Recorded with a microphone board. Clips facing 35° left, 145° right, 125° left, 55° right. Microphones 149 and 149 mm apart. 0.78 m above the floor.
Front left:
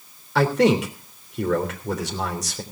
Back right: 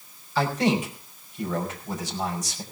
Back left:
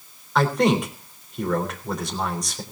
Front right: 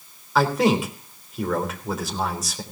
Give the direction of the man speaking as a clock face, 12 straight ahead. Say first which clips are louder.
Front left 5 dB, even; 11 o'clock.